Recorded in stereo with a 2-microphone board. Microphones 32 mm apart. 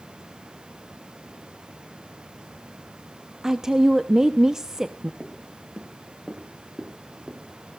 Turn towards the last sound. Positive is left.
turn(degrees=-15)  # may be behind; listen again after turning